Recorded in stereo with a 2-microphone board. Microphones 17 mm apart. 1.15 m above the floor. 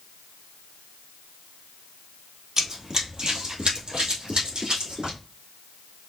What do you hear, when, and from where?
2.6 s running footsteps: 35° right (ahead or behind), 1.7 m; by 5.2 s 70° right (ahead or behind), 3 m